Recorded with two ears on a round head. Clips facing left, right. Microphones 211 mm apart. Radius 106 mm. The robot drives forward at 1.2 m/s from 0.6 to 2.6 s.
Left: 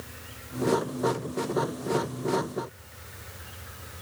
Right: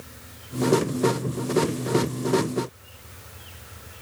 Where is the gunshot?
I don't hear a gunshot.